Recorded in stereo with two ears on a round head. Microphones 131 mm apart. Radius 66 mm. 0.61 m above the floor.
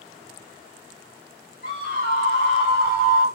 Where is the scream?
65° left (ahead or behind), 1.9 m; by 3.3 s 30° left (ahead or behind), 1.5 m.